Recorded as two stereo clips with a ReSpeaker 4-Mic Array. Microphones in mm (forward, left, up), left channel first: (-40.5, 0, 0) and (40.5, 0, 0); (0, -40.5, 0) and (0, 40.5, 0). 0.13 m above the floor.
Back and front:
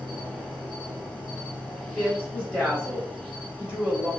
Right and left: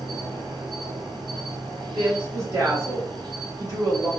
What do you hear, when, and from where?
0.0 s an insect: 90° left, 1.1 m
1.9 s a woman speaking: 65° left, 1.7 m